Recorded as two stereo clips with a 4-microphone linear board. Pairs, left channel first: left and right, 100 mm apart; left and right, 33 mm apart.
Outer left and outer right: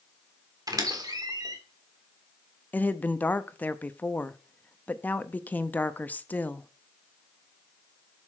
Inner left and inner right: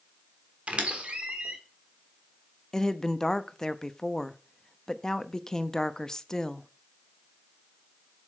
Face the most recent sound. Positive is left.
turn(degrees=15)  # may be behind; listen again after turning